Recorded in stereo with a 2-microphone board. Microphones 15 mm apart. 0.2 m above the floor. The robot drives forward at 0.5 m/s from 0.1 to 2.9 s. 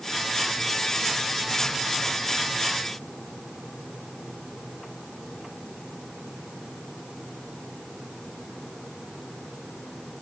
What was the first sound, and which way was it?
Only background noise.